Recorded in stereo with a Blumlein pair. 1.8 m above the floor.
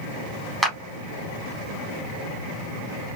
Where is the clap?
5° right, 1.4 m.